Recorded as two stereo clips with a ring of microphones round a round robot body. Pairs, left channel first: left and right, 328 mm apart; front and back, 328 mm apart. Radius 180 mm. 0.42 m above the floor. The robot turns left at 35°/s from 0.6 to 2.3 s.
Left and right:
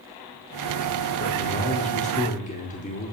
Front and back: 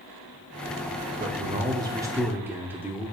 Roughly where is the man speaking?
Behind left.